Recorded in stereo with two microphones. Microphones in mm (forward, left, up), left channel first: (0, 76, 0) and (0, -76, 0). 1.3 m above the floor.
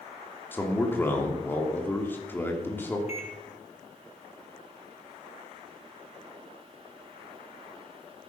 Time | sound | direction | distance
0.5 | a man speaking | 15° left (ahead or behind) | 2.5 m
3.1 | a microwave | 45° left (ahead or behind) | 2.5 m